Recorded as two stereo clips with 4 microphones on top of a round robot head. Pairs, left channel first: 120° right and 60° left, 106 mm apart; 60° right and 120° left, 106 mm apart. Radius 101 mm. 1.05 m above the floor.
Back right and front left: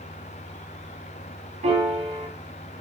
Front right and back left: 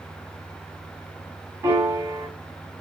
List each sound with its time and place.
1.6 s a piano: 60° left, 2 m